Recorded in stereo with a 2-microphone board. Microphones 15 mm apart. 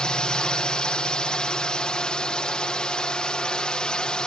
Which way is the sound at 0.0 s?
70° left (ahead or behind).